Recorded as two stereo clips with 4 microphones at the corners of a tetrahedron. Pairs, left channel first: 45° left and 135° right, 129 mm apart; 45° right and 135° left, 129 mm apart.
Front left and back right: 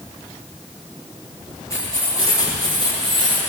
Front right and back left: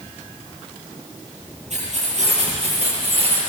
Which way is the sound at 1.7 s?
110° left.